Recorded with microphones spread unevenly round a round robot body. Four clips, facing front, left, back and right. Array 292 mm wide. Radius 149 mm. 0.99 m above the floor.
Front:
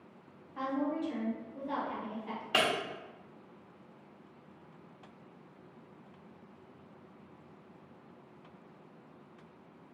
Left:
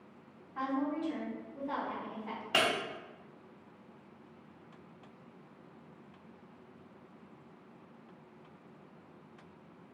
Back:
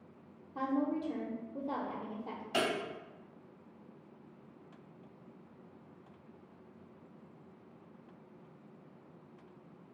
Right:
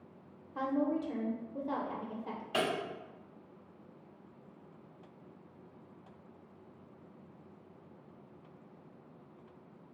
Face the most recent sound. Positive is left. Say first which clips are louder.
# left 2 dB, front 2 dB
turn(degrees=55)